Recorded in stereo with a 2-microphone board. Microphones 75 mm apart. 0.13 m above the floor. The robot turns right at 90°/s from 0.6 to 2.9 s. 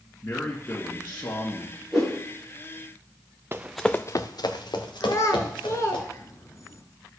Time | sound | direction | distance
0.2 | a man speaking | 25° left (ahead or behind) | 1.7 m
1.9 | a whoosh | 10° right (ahead or behind) | 5 m
3.5 | running footsteps | 30° right (ahead or behind) | 0.6 m
5.0 | a child speaking | 45° left (ahead or behind) | 0.9 m